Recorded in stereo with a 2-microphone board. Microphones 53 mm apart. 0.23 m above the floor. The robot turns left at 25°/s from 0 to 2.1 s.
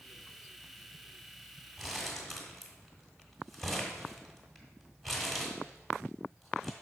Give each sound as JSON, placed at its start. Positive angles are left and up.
{"t": 1.8, "sound": "crumpling", "side_deg": 0, "distance_m": 1.7}